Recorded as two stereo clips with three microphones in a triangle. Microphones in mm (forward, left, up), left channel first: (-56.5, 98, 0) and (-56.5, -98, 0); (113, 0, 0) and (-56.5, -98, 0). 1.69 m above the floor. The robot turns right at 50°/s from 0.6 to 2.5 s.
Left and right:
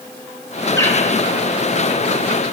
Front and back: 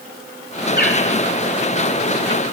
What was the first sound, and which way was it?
A bird, 20° left.